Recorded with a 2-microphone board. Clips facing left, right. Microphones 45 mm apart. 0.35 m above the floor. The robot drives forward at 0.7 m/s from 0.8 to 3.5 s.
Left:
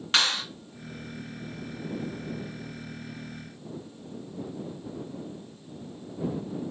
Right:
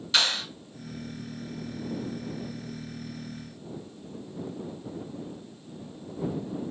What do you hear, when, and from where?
0.1 s a clap: 45° left (ahead or behind), 1.8 m